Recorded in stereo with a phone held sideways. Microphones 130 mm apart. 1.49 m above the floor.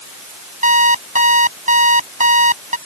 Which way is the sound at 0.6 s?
75° right (ahead or behind).